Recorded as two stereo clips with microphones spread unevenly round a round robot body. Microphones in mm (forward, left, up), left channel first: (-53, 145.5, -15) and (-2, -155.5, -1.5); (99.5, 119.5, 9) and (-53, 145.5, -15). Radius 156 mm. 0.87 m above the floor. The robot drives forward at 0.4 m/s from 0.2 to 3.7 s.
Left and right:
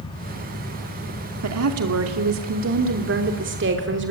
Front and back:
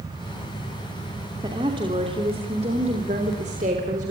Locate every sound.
1.4 s a woman speaking: 120° right, 2.5 m; by 4.1 s 135° right, 3 m